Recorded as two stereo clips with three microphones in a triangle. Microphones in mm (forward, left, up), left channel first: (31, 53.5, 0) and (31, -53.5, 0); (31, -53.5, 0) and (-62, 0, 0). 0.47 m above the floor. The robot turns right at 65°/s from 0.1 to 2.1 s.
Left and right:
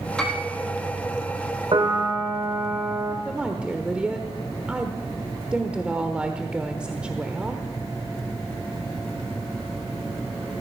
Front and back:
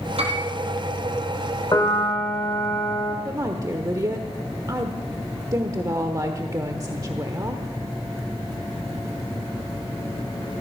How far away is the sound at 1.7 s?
About 2 m.